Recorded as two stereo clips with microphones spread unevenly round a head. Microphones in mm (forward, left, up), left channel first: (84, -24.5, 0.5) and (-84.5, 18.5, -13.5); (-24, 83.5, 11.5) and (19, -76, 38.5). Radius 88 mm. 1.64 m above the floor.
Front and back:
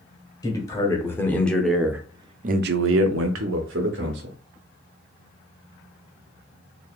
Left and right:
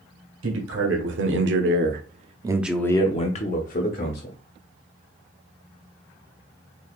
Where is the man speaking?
85° right, 1.5 m; by 4.4 s 135° left, 1.3 m.